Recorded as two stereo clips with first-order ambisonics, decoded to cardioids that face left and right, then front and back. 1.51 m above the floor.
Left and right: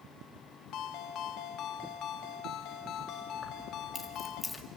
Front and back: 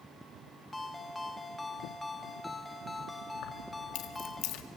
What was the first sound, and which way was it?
A ringtone, 75° left.